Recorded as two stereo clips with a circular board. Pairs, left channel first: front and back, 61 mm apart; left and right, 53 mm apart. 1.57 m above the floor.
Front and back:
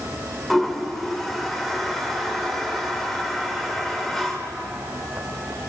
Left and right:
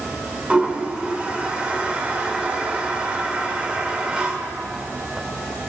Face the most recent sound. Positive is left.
turn(degrees=-75)